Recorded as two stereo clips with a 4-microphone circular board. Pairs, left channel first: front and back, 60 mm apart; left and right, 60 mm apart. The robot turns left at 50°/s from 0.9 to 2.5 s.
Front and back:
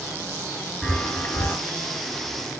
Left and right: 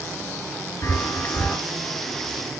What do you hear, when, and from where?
0.8 s a chime: 70° left, 2.5 m; by 1.6 s 35° left, 2.5 m